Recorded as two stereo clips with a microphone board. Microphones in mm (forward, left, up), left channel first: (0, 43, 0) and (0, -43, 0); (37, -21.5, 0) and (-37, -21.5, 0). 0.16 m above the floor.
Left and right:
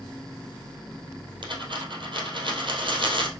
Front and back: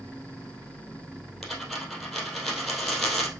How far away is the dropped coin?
About 2.5 m.